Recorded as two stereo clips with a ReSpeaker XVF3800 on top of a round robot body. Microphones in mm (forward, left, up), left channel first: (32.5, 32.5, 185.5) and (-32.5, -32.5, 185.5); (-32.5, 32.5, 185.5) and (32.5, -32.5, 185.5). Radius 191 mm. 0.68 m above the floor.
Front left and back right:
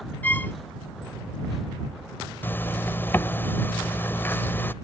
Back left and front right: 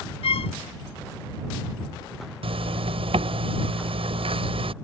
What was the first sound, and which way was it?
A violin, 120° left.